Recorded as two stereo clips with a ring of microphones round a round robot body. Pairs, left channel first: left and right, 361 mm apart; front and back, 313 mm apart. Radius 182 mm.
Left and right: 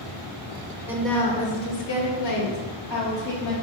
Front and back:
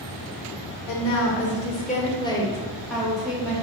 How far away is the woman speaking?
About 1.5 m.